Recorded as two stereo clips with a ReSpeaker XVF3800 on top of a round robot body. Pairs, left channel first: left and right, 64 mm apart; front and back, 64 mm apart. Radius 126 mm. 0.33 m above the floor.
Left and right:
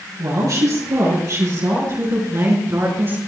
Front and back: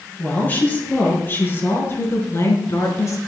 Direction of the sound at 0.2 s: 65° right.